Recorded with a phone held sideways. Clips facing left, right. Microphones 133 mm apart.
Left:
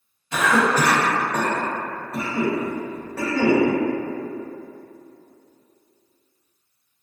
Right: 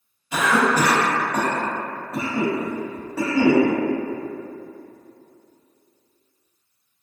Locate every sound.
0.3 s a cough: 10° right (ahead or behind), 1.2 m